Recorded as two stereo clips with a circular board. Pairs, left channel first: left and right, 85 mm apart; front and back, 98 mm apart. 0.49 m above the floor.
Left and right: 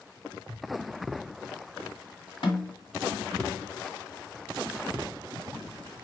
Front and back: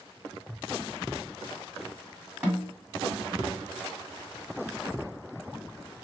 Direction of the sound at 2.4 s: 105° left.